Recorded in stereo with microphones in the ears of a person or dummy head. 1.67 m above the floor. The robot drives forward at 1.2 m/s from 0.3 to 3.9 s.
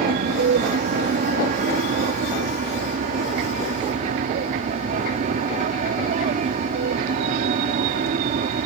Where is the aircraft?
50° right (ahead or behind); by 8.7 s 45° right (ahead or behind).